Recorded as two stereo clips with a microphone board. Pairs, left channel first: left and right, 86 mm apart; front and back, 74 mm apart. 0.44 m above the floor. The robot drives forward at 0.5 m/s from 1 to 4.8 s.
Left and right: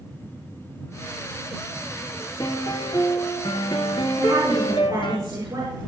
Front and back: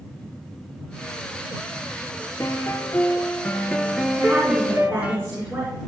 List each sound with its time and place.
2.4 s a piano: 55° left, 1.4 m; by 5.2 s 110° left, 1.2 m
4.2 s a woman speaking: 130° right, 5.5 m; by 5.8 s 135° right, 5.5 m